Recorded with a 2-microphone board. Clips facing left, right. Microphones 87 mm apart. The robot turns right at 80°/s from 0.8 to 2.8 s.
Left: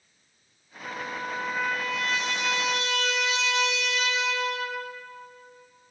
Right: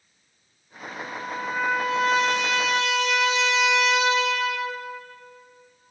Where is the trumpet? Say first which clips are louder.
Even; 125° left, 6 m; by 4.8 s 80° right, 6 m.